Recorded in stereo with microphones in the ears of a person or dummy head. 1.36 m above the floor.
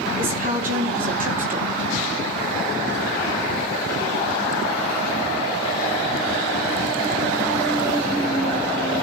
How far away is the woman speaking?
About 3 m.